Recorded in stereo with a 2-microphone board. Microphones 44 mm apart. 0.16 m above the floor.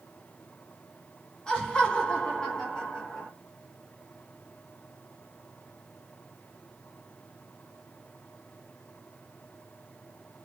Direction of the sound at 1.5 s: 20° left (ahead or behind).